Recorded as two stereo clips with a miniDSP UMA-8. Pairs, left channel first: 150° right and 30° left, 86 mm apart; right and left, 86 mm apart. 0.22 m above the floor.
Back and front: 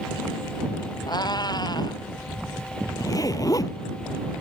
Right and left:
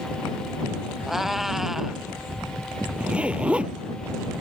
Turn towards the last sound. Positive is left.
turn(degrees=165)